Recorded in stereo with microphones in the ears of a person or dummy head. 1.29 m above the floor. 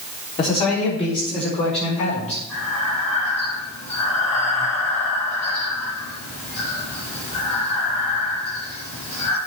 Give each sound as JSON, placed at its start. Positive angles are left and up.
{"t": 0.4, "sound": "a man speaking", "side_deg": 35, "distance_m": 4.0}
{"t": 2.5, "sound": "breathing", "side_deg": 40, "distance_m": 5.5}